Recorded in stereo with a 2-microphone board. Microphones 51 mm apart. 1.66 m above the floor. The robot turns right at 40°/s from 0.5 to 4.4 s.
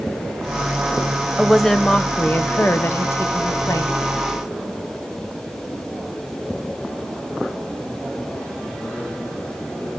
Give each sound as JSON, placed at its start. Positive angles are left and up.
{"t": 1.4, "sound": "a woman speaking", "azimuth_deg": -5, "distance_m": 0.9}